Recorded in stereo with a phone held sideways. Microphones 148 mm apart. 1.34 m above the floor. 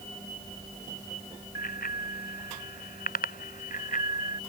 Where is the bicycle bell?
90° left; by 4.4 s 65° left (ahead or behind).